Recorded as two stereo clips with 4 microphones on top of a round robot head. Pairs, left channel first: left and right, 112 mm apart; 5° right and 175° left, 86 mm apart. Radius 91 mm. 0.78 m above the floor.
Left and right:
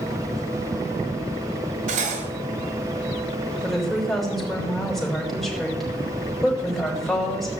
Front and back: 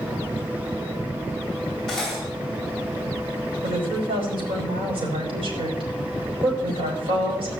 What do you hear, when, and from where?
1.9 s cutlery clinking: 95° right, 2.5 m
3.6 s a woman speaking: straight behind, 5 m